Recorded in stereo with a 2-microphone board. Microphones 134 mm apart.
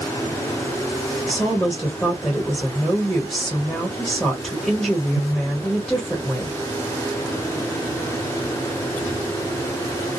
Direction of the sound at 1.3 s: Centre (ahead or behind).